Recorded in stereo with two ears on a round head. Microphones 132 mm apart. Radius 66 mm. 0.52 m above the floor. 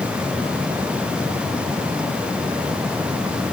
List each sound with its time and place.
Only background noise.